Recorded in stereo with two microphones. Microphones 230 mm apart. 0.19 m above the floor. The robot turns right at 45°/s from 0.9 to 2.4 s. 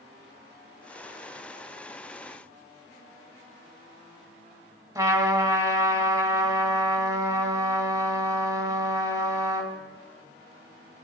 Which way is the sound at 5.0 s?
15° right (ahead or behind).